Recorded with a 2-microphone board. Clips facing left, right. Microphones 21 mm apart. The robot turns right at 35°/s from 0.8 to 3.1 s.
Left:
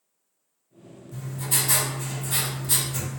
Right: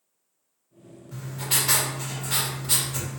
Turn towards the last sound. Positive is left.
turn(degrees=0)